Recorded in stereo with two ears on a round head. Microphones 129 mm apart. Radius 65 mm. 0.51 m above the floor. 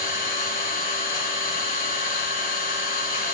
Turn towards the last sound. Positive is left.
turn(degrees=60)  # may be behind; listen again after turning